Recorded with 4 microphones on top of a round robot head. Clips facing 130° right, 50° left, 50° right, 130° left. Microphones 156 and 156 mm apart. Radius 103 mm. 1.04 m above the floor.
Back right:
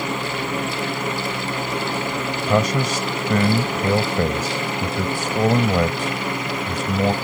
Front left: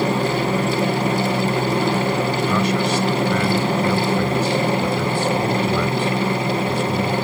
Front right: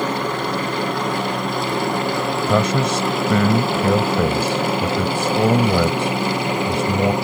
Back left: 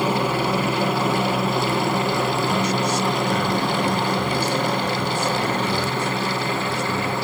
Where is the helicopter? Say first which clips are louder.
Front left 6 dB, back left 1 dB; 55° left; by 7.2 s 15° left.